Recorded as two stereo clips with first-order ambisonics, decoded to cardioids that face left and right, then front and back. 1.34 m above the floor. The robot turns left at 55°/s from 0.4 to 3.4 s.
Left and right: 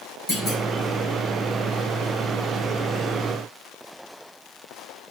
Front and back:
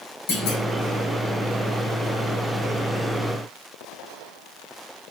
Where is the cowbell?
No cowbell in this recording.